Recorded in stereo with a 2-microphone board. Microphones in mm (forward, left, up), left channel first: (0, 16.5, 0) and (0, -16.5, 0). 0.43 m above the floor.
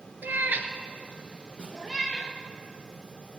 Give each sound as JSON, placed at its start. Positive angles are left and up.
{"t": 0.2, "sound": "a cat meowing", "side_deg": -75, "distance_m": 1.0}
{"t": 1.6, "sound": "a snare drum", "side_deg": -30, "distance_m": 3.0}